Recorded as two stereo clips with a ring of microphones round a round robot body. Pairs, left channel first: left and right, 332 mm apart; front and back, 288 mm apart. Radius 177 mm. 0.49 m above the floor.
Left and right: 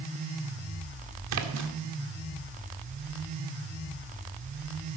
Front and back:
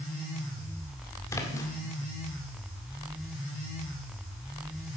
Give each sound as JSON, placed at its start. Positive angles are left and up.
{"t": 1.3, "sound": "a splash", "azimuth_deg": -80, "distance_m": 1.7}